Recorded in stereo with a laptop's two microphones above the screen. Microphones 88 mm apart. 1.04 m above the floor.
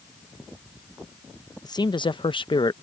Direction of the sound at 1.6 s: 50° left (ahead or behind).